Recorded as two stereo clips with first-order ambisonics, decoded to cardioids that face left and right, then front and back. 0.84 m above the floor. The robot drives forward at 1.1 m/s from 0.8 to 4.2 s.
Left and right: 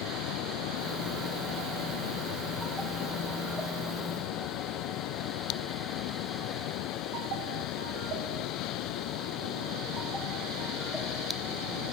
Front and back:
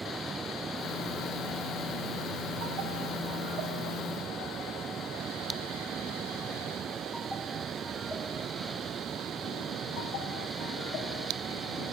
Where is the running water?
105° left; by 11.9 s 115° left.